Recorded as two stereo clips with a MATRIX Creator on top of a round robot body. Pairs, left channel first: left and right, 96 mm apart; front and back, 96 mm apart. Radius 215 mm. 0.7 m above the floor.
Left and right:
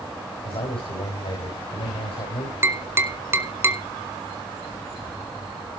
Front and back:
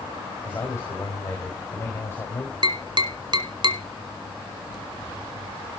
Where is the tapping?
150° right, 1.6 m.